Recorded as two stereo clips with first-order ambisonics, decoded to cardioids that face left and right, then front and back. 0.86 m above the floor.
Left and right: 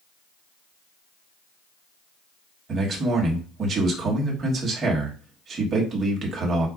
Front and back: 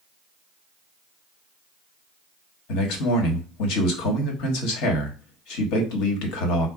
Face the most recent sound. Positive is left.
turn(degrees=-25)